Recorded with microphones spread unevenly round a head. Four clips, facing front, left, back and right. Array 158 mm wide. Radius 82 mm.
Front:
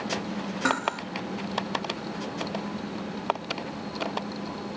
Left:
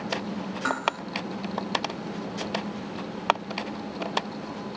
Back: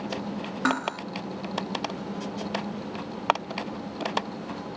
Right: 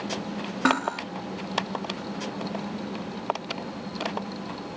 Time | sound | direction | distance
0.7 | cutlery clinking | 100° right | 3.5 m